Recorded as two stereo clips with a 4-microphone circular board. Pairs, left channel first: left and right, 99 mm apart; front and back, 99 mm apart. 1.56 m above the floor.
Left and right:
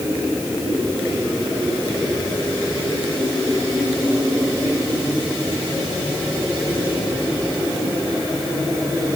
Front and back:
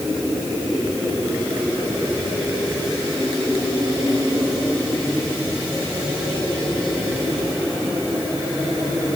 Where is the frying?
I don't hear frying.